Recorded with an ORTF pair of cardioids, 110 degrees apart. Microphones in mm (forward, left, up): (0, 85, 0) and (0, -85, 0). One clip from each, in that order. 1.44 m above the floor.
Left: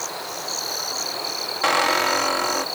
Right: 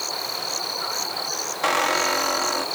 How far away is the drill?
No drill in this recording.